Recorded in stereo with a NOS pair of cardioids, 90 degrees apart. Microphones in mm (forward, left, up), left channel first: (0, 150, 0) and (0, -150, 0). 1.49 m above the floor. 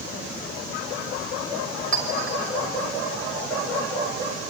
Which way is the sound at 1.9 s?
45° right.